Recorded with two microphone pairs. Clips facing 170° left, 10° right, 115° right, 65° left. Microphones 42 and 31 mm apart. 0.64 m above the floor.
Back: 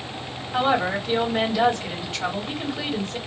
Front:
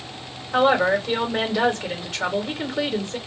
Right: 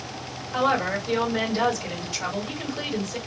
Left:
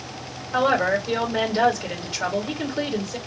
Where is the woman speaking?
5° left, 2 m.